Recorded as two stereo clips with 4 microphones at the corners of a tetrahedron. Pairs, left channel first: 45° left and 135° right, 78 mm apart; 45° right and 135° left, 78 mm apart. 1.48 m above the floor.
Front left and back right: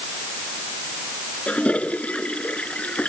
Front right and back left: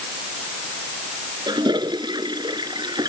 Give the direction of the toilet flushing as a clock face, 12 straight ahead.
8 o'clock.